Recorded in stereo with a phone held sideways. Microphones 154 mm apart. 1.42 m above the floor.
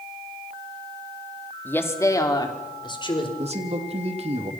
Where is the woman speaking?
10° left (ahead or behind), 2.5 m; by 3.3 s 35° left (ahead or behind), 4 m.